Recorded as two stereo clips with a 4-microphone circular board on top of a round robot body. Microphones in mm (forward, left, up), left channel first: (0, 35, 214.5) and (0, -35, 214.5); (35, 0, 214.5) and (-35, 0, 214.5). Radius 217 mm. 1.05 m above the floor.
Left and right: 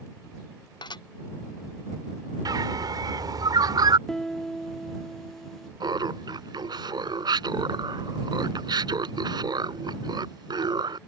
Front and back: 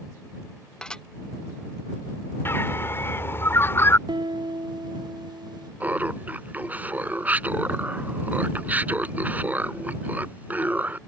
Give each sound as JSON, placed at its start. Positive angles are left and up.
{"t": 0.8, "sound": "dishes clattering", "azimuth_deg": 80}
{"t": 2.5, "sound": "a bird", "azimuth_deg": -60}
{"t": 4.1, "sound": "a piano", "azimuth_deg": 175}
{"t": 5.8, "sound": "laughter", "azimuth_deg": -110}